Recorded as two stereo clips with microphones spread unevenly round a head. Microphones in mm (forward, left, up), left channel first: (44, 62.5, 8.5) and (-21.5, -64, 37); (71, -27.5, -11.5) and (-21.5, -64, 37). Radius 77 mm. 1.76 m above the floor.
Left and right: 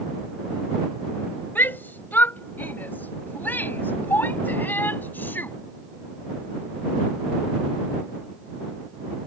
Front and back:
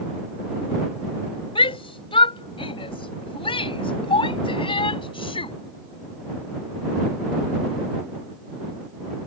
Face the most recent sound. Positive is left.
turn(degrees=-15)